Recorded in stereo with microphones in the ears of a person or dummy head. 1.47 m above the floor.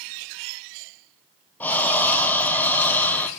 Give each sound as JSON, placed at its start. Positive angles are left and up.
{"t": 1.6, "sound": "breathing", "side_deg": 5, "distance_m": 0.7}